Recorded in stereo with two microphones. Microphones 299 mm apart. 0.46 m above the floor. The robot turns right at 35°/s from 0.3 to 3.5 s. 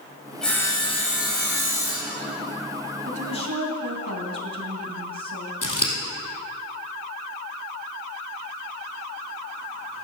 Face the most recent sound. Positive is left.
turn(degrees=85)